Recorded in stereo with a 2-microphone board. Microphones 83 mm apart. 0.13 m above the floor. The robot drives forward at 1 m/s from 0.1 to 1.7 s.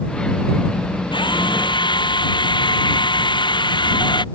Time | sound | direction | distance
1.1 | a drill | 75° left (ahead or behind) | ?